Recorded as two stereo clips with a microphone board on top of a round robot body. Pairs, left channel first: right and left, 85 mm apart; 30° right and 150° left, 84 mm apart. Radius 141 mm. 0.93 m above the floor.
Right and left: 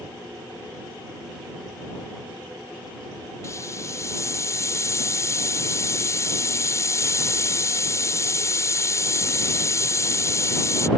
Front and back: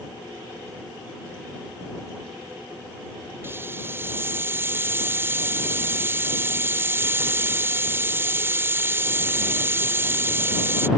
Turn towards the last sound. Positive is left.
turn(degrees=-145)